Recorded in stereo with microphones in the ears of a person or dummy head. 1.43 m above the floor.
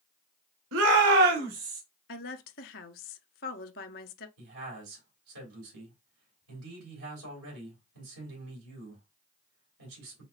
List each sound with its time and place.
0.7 s a shout: 75° right (ahead or behind), 0.9 m; by 1.8 s 40° right (ahead or behind), 1.4 m
2.1 s a woman speaking: 50° left (ahead or behind), 0.6 m
4.4 s a man speaking: 80° right, 2.5 m